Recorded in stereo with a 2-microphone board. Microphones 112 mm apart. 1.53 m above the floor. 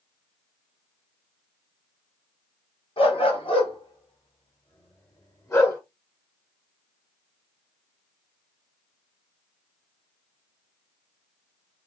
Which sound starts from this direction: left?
A dog barking, at 3.0 s.